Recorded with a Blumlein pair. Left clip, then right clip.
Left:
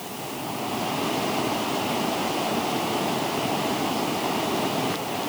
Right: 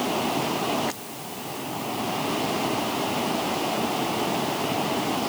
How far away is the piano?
No piano in this recording.